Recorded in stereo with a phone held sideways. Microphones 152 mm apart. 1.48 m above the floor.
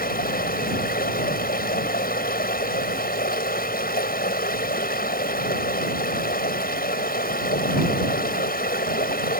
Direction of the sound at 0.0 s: 80° left.